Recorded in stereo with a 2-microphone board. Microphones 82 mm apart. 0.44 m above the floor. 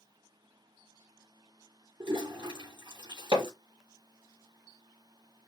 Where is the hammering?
90° right, 2.5 m.